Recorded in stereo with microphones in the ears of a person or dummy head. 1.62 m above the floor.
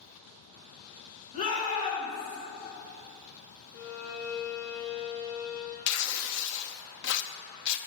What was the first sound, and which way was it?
A shout, 40° left (ahead or behind).